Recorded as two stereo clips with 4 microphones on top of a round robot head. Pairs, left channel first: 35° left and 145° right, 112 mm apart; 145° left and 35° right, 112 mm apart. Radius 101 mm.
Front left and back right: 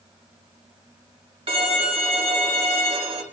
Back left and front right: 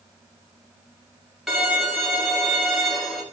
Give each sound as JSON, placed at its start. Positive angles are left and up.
{"t": 1.5, "sound": "a violin", "azimuth_deg": -120, "distance_m": 2.0}